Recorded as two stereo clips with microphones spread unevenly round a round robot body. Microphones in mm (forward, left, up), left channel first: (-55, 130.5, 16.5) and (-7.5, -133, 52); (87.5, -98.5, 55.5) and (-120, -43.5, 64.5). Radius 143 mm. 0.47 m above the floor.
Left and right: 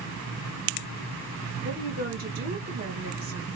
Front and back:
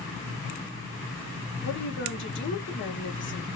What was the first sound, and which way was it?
A woman speaking, 20° right.